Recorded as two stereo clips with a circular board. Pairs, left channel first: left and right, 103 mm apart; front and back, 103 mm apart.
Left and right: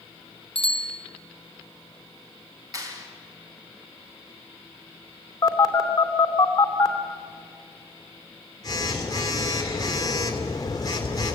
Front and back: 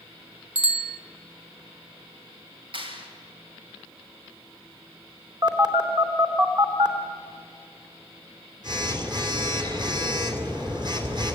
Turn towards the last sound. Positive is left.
turn(degrees=140)